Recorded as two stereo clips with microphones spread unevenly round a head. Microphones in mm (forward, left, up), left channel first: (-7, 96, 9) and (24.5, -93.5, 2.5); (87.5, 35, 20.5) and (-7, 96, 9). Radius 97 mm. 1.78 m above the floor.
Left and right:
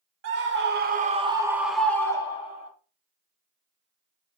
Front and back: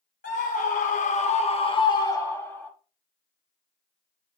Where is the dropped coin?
No dropped coin in this recording.